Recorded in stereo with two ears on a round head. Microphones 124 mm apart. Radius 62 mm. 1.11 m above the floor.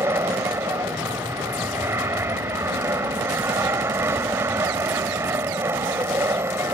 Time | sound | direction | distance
0.0 | an aircraft | 15° right (ahead or behind) | ?